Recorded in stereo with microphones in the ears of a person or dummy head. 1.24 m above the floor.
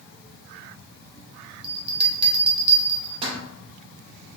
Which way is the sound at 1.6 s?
35° right (ahead or behind).